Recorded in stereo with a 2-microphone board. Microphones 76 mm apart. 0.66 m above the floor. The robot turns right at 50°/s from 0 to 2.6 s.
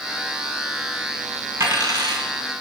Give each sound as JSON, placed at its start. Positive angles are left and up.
{"t": 1.6, "sound": "a dropped coin", "azimuth_deg": -135, "distance_m": 2.0}